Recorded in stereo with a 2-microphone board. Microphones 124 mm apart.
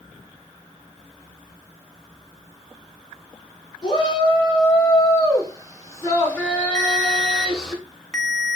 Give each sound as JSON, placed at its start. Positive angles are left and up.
{"t": 3.8, "sound": "a shout", "side_deg": 35, "distance_m": 2.5}
{"t": 6.8, "sound": "a ringtone", "side_deg": 0, "distance_m": 0.8}